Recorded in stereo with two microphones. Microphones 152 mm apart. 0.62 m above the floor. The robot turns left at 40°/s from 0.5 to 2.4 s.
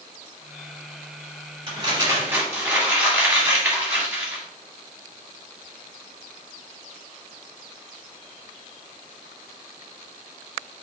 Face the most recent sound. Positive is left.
turn(degrees=-15)  # may be behind; listen again after turning